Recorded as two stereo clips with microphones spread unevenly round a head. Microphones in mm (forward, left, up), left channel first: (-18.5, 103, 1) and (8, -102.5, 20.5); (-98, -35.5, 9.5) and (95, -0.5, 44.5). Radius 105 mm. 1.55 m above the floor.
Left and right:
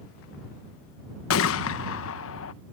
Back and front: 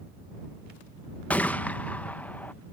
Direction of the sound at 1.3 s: 100° left.